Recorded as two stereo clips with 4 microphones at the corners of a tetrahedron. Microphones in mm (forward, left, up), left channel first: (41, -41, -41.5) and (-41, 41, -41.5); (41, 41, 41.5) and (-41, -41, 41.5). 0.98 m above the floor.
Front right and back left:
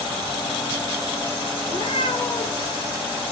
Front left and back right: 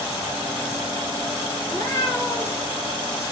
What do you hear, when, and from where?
1.6 s a cat meowing: 15° right, 3 m